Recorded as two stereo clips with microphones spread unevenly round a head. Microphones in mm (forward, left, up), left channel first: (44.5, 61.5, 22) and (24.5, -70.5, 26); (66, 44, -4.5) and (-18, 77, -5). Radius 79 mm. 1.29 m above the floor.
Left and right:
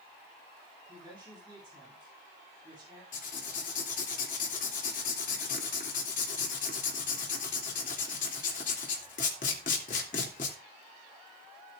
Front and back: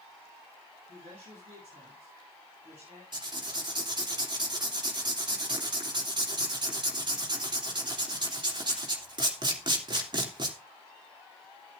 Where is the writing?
120° left, 3 m.